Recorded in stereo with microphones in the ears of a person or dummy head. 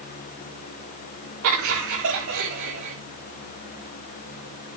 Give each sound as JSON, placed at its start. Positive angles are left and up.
{"t": 1.4, "sound": "laughter", "side_deg": -80, "distance_m": 4.0}